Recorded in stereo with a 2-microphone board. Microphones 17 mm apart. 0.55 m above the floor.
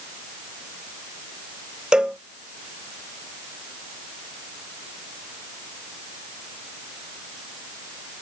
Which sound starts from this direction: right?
A cowbell, at 1.9 s.